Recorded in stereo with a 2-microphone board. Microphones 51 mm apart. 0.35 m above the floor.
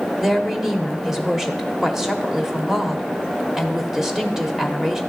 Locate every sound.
0.2 s a woman speaking: 5° right (ahead or behind), 0.9 m